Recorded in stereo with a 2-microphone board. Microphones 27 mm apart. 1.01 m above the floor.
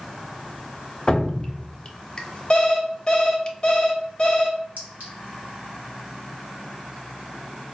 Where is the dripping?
30° left (ahead or behind), 0.6 m.